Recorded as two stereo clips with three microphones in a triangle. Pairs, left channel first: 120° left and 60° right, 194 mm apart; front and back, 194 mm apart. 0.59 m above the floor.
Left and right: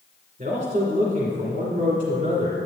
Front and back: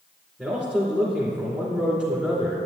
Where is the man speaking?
85° right, 2 m.